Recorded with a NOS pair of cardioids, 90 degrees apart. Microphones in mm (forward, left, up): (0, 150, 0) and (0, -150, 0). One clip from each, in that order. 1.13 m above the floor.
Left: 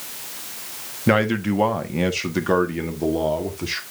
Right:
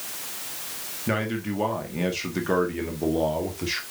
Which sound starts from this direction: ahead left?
A man speaking, at 1.1 s.